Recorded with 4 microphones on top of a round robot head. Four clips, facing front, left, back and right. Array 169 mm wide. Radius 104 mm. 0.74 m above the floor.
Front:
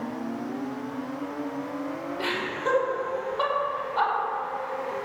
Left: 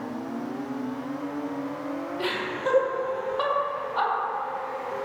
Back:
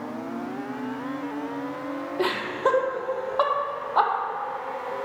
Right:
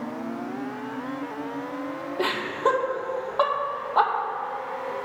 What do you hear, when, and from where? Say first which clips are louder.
2.2 s laughter: right 7 dB, back 6 dB; 140° right, 2 m